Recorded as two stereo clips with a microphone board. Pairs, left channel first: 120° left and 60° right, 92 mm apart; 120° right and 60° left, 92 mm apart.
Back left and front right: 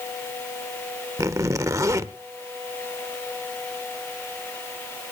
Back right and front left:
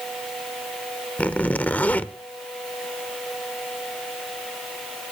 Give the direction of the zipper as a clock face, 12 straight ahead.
2 o'clock.